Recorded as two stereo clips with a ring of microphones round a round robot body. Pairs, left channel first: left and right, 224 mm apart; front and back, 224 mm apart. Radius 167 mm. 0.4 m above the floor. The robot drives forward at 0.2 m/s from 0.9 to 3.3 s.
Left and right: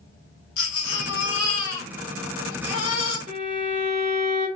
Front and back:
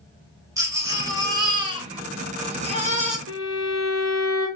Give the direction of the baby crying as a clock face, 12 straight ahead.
9 o'clock.